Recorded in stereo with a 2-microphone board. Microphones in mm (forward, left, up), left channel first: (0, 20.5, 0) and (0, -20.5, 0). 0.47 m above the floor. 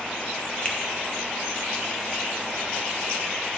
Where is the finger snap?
25° left (ahead or behind), 0.9 m.